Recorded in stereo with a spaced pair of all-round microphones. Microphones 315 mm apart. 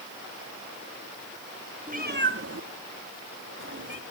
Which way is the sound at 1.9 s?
25° right (ahead or behind).